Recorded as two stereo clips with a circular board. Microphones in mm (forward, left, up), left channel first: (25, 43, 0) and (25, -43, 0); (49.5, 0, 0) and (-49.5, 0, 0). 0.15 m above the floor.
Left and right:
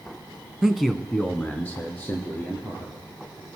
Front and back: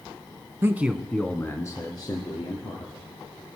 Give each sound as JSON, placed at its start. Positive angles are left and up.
{"t": 0.6, "sound": "a man speaking", "azimuth_deg": -170, "distance_m": 1.1}